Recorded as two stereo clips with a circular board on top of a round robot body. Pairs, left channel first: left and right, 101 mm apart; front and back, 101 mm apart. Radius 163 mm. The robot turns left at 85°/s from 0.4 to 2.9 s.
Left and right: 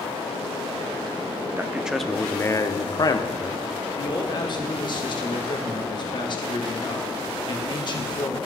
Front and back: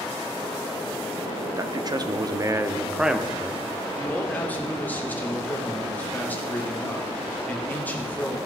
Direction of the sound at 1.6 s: 145° right.